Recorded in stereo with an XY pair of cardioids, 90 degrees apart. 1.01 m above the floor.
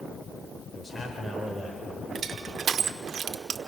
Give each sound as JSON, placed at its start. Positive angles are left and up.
{"t": 0.7, "sound": "a man speaking", "azimuth_deg": 30, "distance_m": 4.0}
{"t": 2.1, "sound": "crushing", "azimuth_deg": -60, "distance_m": 1.2}